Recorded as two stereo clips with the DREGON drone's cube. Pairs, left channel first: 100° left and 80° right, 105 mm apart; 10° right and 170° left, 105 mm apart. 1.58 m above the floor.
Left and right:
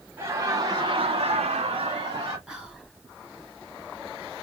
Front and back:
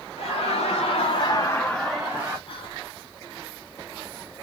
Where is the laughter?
10° right, 0.8 m; by 2.4 s 120° right, 0.7 m.